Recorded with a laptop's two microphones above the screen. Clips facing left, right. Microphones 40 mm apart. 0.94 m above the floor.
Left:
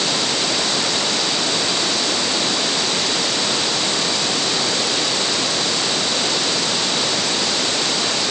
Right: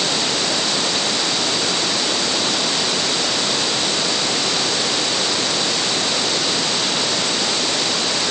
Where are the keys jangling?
No keys jangling in this recording.